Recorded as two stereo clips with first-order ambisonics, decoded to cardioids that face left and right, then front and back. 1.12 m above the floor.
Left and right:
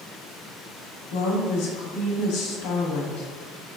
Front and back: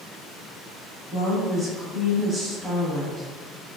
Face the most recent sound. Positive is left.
turn(degrees=95)